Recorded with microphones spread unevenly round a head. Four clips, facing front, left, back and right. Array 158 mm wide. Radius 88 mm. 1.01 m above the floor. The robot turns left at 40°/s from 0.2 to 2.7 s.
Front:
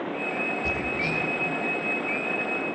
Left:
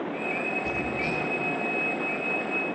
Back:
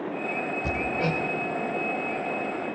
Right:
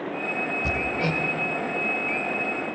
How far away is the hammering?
About 2.5 m.